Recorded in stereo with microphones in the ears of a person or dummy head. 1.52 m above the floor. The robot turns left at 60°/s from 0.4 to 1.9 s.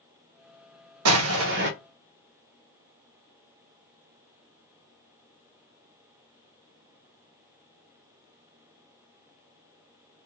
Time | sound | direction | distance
1.1 | an explosion | 95° right | 0.6 m